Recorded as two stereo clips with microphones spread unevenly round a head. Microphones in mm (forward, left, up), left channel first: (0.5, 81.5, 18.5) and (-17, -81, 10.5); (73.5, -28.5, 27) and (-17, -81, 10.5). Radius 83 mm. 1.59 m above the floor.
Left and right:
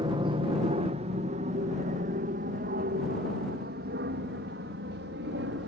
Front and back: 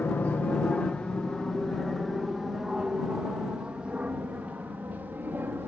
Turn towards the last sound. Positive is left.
turn(degrees=-80)